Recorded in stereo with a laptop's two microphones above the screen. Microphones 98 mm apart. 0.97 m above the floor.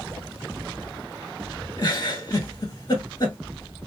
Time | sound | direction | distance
1.8 | a giggle | 45° left (ahead or behind) | 1.5 m